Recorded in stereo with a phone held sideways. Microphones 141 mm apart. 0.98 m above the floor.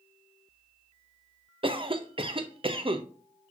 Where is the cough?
40° right (ahead or behind), 0.5 m.